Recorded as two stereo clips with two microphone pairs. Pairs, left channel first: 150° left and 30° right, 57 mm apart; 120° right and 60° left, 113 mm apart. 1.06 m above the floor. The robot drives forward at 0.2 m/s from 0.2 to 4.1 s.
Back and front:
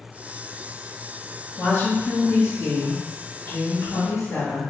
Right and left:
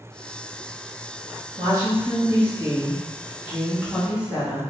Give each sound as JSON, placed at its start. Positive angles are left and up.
{"t": 1.6, "sound": "a woman speaking", "azimuth_deg": 115, "distance_m": 1.2}